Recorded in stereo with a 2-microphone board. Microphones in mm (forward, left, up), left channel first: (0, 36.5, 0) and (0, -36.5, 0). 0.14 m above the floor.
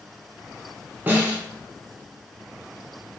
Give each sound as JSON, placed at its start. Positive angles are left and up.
{"t": 1.1, "sound": "a snare drum", "side_deg": -20, "distance_m": 1.0}